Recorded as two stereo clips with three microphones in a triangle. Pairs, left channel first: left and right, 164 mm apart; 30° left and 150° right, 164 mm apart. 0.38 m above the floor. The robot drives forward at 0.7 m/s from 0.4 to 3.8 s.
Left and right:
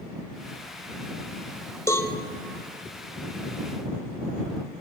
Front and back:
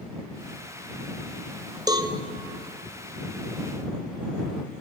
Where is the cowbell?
155° left, 1.9 m; by 2.1 s 160° left, 2 m.